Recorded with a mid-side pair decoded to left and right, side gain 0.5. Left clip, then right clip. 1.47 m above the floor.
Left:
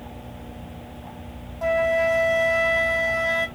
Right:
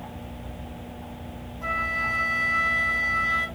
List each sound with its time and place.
1.6 s a flute: 60° left, 2.5 m